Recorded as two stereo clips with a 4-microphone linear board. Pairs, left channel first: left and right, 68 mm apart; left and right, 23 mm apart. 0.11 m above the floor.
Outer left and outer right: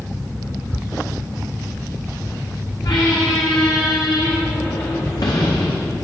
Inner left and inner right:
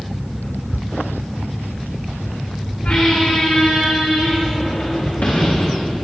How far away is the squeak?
About 4 m.